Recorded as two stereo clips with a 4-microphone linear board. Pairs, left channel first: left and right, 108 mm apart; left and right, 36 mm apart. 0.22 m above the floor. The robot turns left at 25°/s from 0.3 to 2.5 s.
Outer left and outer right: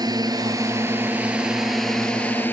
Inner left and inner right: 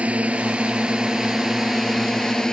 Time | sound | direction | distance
0.0 | a drone | 140° right | ?